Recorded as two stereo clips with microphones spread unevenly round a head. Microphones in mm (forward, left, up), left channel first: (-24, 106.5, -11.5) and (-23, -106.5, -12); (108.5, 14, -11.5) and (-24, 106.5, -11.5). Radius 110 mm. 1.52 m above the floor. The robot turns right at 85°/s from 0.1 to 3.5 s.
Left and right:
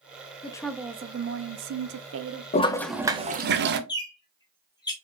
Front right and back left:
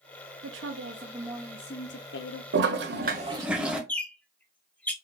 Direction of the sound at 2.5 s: 150° left.